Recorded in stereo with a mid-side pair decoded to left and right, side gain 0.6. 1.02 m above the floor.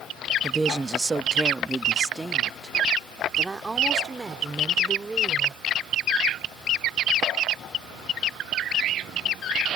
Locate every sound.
0.4 s a woman speaking: 15° right